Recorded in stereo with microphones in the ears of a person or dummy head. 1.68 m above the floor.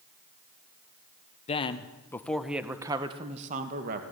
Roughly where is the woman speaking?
Left.